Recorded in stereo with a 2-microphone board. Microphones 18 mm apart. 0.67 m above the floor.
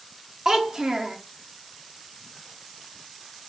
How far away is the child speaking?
About 0.7 m.